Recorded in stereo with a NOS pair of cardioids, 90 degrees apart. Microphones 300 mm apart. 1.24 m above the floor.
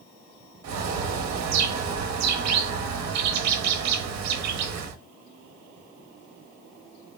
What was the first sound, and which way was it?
A bird, 65° right.